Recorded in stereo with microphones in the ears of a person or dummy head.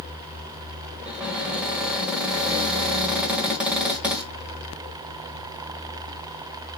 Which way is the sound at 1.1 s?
5° right (ahead or behind).